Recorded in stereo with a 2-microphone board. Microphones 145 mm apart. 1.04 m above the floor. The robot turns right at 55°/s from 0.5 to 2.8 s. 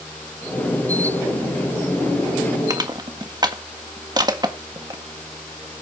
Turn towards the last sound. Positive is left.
turn(degrees=-30)  # may be behind; listen again after turning